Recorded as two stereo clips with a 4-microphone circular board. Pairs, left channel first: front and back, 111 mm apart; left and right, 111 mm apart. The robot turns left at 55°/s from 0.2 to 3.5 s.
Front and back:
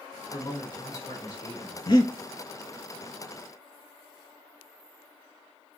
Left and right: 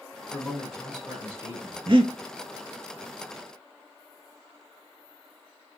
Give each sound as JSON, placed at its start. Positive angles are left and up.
{"t": 0.3, "sound": "a man speaking", "azimuth_deg": 15, "distance_m": 2.0}
{"t": 1.9, "sound": "breathing", "azimuth_deg": -50, "distance_m": 0.5}